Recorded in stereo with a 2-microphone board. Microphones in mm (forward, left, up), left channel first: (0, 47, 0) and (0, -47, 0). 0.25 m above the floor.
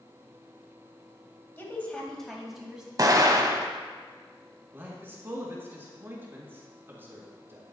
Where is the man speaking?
25° right (ahead or behind), 2.5 m.